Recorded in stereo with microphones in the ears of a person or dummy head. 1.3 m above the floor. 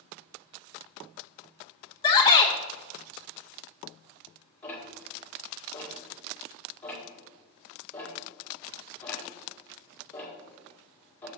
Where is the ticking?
10° left (ahead or behind), 2 m.